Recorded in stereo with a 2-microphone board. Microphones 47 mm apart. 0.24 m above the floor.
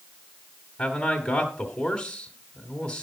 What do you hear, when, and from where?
0.8 s a man speaking: 25° left (ahead or behind), 1.6 m